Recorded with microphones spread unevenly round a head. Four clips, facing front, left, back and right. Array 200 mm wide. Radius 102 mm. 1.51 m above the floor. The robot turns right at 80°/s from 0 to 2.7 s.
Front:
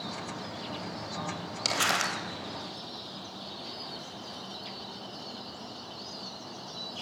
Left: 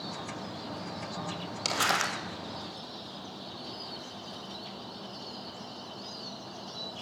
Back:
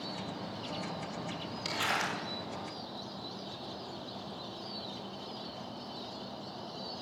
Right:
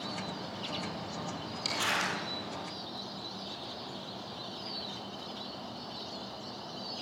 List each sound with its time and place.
1.6 s crumpling: 30° left, 2 m; by 2.1 s 70° left, 2 m